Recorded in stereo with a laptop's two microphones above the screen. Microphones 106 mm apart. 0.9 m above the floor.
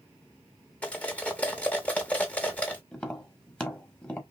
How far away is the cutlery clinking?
About 0.8 m.